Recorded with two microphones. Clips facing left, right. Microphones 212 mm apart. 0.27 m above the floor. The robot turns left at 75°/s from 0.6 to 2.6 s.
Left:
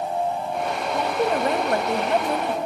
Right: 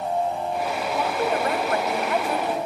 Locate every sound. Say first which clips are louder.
0.9 s a woman speaking: left 2 dB; 160° left, 1.3 m; by 2.6 s 40° left, 1.3 m